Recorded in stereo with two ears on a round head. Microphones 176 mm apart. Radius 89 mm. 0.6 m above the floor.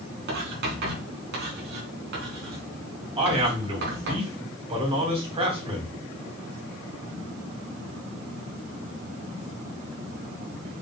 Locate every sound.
0.3 s writing: 60° right (ahead or behind), 3.5 m
3.2 s a man speaking: 30° right (ahead or behind), 4 m